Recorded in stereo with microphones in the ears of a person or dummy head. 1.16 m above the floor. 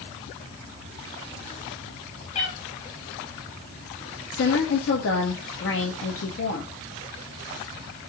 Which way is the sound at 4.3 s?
65° left (ahead or behind).